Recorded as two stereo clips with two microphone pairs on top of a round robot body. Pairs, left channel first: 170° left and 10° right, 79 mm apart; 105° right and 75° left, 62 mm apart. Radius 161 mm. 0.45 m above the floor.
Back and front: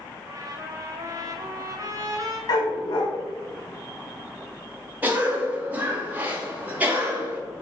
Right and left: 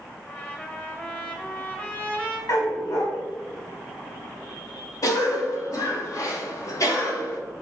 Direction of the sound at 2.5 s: 150° right.